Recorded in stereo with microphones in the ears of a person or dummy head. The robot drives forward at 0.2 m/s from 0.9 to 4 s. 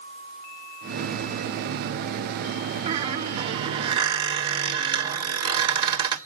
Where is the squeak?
40° right (ahead or behind), 0.9 m; by 6.2 s 30° right (ahead or behind), 1.1 m.